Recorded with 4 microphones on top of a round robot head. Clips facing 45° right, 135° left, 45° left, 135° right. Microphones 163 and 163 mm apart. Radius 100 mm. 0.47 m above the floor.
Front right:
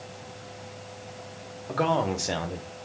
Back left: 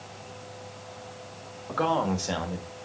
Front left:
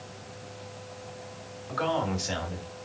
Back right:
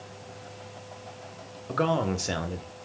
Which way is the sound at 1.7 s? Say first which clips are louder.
Front right 1 dB, back right 3 dB; 120° right.